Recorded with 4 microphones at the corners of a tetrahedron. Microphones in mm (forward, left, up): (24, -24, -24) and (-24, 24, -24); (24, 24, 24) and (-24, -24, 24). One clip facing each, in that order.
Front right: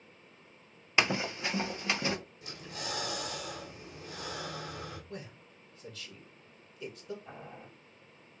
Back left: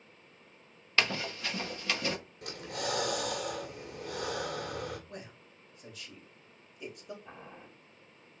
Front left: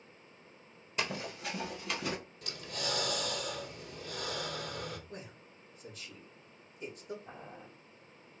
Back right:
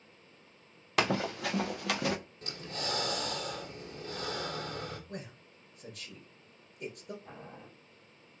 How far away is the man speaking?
About 2.5 m.